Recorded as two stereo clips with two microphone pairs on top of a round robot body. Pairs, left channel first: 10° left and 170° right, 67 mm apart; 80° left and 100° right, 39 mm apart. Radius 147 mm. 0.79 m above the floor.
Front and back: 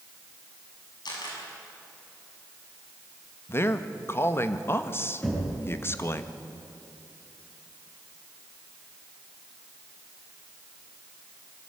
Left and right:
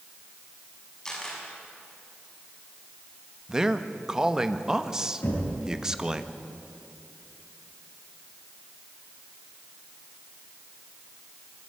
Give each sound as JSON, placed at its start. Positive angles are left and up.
{"t": 1.1, "sound": "a camera shutter", "azimuth_deg": 5, "distance_m": 7.0}
{"t": 3.5, "sound": "a man speaking", "azimuth_deg": -40, "distance_m": 1.6}
{"t": 5.2, "sound": "knocking", "azimuth_deg": 85, "distance_m": 8.0}